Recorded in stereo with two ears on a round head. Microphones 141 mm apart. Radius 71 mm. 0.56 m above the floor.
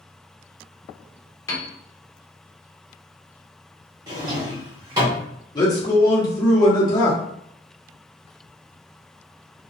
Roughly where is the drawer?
Right.